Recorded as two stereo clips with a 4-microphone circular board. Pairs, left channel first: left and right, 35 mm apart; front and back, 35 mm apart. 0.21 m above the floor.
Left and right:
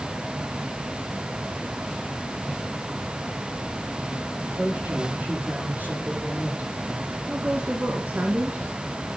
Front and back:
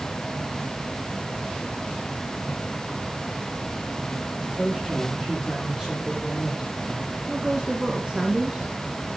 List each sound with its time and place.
4.4 s a man speaking: 95° right, 7.5 m; by 7.2 s 100° right, 10.5 m
7.3 s a woman speaking: 110° right, 2.5 m